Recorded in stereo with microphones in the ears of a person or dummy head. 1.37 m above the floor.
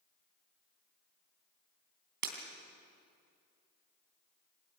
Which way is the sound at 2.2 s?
55° right (ahead or behind).